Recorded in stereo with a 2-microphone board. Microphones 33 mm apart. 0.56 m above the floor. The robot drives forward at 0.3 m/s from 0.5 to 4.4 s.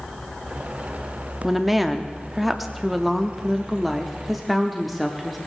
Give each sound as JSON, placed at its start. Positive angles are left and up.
{"t": 1.4, "sound": "a woman speaking", "side_deg": -5, "distance_m": 0.6}